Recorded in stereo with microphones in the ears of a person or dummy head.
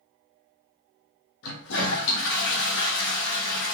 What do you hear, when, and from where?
1.4 s a toilet flushing: 75° left (ahead or behind), 0.6 m